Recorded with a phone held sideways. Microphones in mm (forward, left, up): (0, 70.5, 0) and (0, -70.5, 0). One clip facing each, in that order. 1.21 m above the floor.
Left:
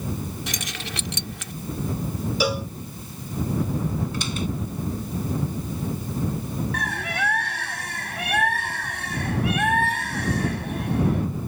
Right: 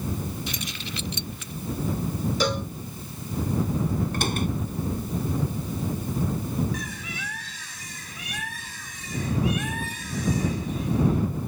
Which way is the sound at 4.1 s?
55° right (ahead or behind).